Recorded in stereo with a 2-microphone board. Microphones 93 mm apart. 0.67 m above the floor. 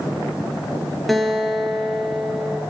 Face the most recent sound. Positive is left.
turn(degrees=0)  # may be behind; listen again after turning